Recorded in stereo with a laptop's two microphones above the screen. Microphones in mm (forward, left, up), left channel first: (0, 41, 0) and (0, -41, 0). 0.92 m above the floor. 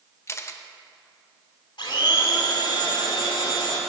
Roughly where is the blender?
Left.